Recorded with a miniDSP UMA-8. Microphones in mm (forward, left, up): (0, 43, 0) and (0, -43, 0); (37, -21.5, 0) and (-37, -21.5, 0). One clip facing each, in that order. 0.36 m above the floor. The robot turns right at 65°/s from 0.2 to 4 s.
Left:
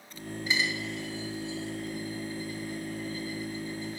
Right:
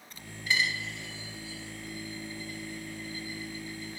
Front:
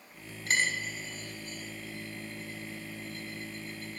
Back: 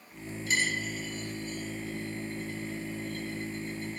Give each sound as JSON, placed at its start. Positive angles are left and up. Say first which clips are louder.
{"t": 0.5, "sound": "a dropped coin", "louder": "even, even", "azimuth_deg": 20, "distance_m": 0.8}